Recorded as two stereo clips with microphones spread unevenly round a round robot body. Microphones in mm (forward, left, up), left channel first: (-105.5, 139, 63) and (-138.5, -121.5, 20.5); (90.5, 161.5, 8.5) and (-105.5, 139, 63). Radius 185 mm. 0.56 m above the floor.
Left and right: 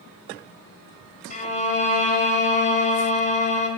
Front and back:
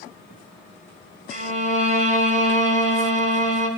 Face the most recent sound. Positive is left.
turn(degrees=140)